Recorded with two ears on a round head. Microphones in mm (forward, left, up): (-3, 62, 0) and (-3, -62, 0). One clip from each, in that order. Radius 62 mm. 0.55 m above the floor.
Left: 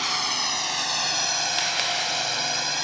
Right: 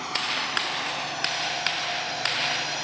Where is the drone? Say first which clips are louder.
Left 3 dB; 70° left (ahead or behind); by 2.8 s 35° left (ahead or behind).